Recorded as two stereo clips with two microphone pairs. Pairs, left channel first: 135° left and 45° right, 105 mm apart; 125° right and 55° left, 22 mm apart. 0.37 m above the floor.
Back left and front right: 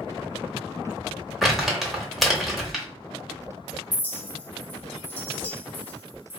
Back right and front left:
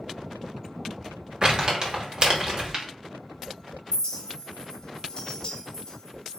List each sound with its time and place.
1.4 s crumpling: 45° left, 0.9 m
3.9 s a clink: 165° right, 0.6 m